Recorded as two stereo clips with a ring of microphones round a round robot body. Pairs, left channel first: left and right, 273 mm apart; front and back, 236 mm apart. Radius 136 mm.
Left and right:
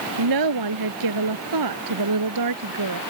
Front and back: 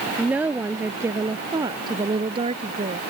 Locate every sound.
0.2 s a woman speaking: 95° right; by 3.0 s 110° right